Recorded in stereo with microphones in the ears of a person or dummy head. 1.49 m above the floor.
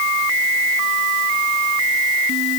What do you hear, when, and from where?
Only background noise.